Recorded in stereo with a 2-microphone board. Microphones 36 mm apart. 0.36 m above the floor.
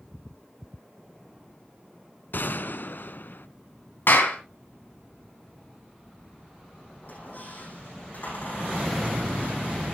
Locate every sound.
2.3 s a gunshot: 65° left (ahead or behind), 0.6 m
4.1 s a clap: 70° left (ahead or behind), 3 m
7.0 s a squeak: 50° left (ahead or behind), 8.5 m